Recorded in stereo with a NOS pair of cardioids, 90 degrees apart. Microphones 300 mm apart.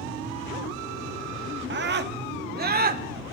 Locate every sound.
1.7 s a scream: 40° right, 1.6 m; by 3.0 s 30° right, 3 m